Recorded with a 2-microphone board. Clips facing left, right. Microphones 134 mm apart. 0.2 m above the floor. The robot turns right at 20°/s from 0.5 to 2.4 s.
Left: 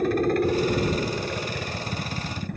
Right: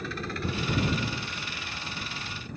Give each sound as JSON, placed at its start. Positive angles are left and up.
{"t": 0.0, "sound": "a helicopter", "azimuth_deg": 60}